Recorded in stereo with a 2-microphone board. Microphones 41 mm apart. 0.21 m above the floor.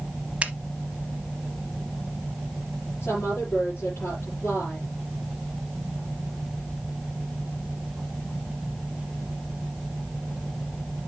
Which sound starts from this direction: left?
A woman speaking, at 3.0 s.